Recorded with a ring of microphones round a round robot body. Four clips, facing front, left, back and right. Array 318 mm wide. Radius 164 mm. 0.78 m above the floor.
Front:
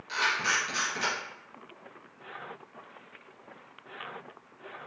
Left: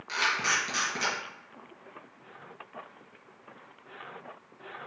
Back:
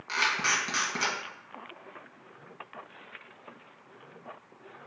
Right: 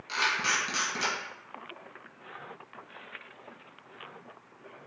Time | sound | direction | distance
0.1 | a camera shutter | 175° left | 1.4 m